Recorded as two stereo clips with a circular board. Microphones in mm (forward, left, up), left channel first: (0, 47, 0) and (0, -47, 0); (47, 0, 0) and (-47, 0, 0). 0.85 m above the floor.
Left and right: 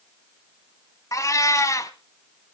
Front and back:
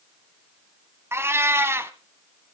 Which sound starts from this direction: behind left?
A cat meowing, at 1.1 s.